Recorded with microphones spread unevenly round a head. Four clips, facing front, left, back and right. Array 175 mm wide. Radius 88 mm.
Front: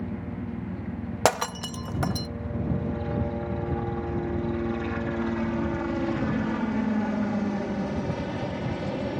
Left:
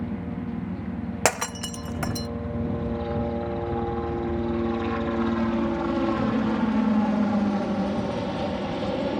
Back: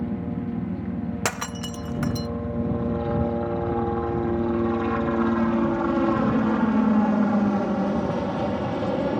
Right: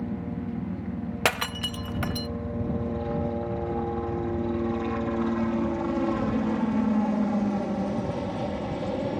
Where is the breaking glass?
25° left.